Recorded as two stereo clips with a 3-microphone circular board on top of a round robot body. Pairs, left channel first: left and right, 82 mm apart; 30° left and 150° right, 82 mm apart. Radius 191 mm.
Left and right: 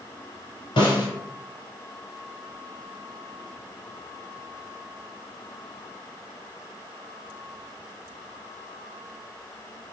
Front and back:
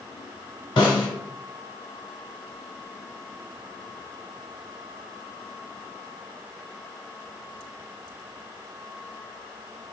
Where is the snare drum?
65° left, 0.6 m.